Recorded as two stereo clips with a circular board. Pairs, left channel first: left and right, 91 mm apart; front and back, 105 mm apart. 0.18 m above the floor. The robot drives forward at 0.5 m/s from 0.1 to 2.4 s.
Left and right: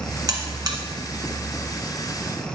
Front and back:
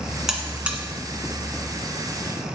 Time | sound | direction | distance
0.3 | a buzzer | 95° right | 1.4 m